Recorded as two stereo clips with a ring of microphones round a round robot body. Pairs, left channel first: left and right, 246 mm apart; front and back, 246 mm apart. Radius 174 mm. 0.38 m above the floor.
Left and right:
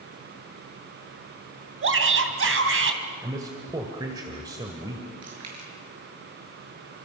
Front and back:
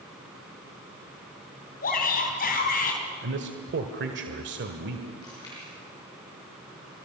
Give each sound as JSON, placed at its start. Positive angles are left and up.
{"t": 1.8, "sound": "a shout", "azimuth_deg": -60, "distance_m": 3.5}
{"t": 3.2, "sound": "a man speaking", "azimuth_deg": -165, "distance_m": 1.4}
{"t": 5.2, "sound": "chewing", "azimuth_deg": -80, "distance_m": 6.5}